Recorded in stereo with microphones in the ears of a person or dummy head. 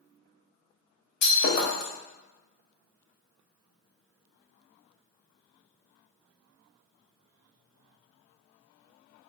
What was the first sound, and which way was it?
Breaking glass, 60° left (ahead or behind).